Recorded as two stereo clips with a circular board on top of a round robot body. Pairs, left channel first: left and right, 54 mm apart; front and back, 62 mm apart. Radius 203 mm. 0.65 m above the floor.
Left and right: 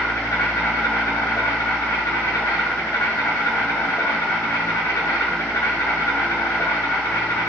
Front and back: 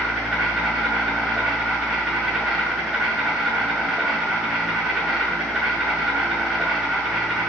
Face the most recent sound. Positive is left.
turn(degrees=100)